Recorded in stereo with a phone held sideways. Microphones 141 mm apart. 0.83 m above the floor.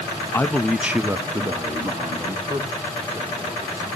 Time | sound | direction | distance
0.3 | a man speaking | 15° left (ahead or behind) | 0.8 m